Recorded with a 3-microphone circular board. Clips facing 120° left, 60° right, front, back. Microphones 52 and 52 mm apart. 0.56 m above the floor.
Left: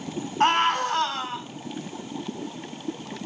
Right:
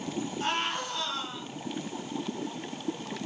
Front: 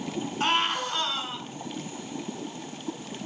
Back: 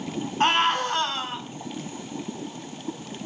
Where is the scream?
140° left, 5 m.